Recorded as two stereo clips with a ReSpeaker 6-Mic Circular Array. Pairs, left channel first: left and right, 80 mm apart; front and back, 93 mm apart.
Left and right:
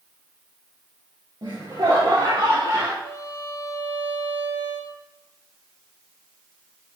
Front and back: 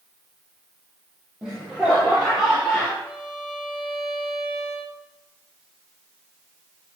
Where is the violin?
105° right, 8 m.